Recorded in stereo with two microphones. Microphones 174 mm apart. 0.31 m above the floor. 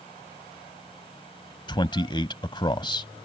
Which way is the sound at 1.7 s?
30° left (ahead or behind).